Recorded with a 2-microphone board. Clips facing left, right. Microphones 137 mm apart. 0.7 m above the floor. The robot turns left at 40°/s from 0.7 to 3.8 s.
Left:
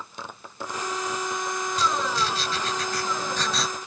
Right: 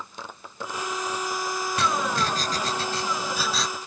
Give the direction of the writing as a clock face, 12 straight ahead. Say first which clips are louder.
Right 1 dB; 4 o'clock.